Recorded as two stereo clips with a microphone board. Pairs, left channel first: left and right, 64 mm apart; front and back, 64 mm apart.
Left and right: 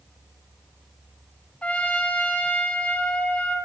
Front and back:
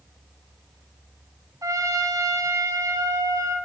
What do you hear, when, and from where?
1.6 s a trumpet: 160° left, 2.5 m